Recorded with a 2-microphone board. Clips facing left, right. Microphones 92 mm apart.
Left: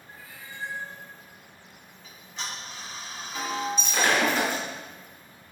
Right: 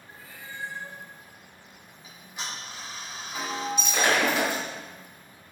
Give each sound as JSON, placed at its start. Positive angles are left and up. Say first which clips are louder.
{"t": 0.1, "sound": "a cat meowing", "louder": "right 1 dB", "side_deg": -30, "distance_m": 1.3}
{"t": 2.0, "sound": "ticking", "louder": "even", "side_deg": -10, "distance_m": 1.1}
{"t": 3.8, "sound": "breaking glass", "louder": "right 1 dB", "side_deg": -10, "distance_m": 1.4}